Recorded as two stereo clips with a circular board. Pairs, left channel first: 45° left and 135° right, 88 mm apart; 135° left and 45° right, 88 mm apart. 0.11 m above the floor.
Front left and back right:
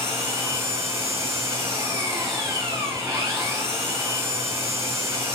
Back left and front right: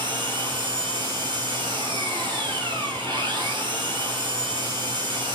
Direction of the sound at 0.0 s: 75° right.